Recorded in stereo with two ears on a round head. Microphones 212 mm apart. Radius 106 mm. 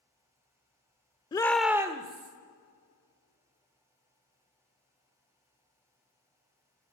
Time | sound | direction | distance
1.3 | a shout | 20° left (ahead or behind) | 0.8 m